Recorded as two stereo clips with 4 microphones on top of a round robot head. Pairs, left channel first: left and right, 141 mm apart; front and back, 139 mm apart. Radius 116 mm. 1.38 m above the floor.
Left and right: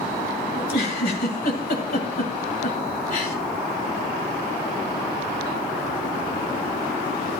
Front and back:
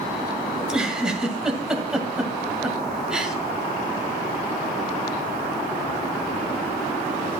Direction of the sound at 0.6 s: 95° left.